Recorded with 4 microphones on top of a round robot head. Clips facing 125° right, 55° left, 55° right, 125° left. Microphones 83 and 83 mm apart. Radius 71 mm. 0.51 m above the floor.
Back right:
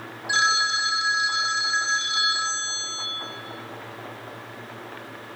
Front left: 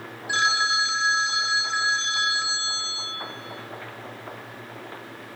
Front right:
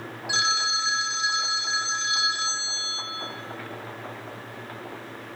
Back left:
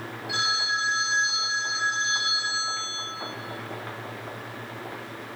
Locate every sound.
0.3 s a phone ringing: 50° right, 1.8 m